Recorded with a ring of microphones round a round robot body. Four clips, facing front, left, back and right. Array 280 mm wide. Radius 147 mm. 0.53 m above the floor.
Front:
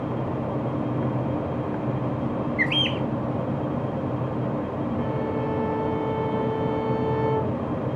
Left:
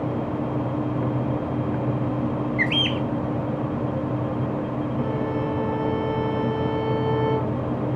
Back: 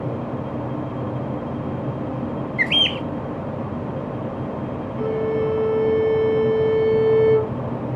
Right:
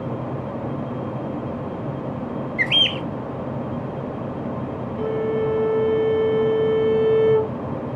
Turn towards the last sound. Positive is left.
turn(degrees=-130)